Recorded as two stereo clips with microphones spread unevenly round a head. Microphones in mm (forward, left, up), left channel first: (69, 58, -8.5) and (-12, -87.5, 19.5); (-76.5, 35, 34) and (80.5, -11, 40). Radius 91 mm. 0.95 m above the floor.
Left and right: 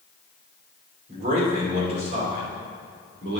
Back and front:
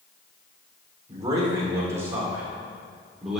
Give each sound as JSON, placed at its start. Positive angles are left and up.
{"t": 1.1, "sound": "a man speaking", "azimuth_deg": -80, "distance_m": 3.0}